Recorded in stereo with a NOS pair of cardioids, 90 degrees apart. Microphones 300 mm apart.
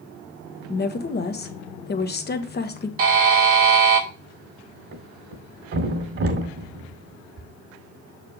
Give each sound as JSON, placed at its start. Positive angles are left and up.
{"t": 0.7, "sound": "a woman speaking", "azimuth_deg": 35, "distance_m": 1.3}
{"t": 3.0, "sound": "a buzzer", "azimuth_deg": -50, "distance_m": 1.9}
{"t": 4.9, "sound": "a thud", "azimuth_deg": -50, "distance_m": 2.0}